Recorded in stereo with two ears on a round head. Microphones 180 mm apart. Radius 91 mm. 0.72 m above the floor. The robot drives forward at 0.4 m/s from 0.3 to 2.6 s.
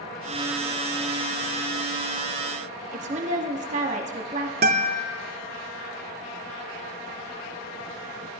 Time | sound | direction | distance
2.9 | a woman speaking | 35° right (ahead or behind) | 0.9 m
4.6 | a guitar | 50° right (ahead or behind) | 0.5 m